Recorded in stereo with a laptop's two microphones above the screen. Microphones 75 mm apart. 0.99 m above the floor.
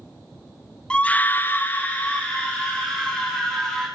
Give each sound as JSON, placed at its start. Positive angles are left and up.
{"t": 0.9, "sound": "a scream", "side_deg": 15, "distance_m": 0.9}